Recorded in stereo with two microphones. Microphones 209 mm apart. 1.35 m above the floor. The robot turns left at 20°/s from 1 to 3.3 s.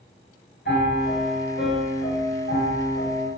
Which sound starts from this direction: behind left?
A piano, at 0.7 s.